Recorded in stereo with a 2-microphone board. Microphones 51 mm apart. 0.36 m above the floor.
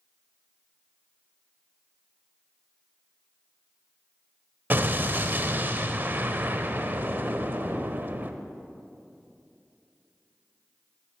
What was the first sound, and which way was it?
An explosion, 40° right (ahead or behind).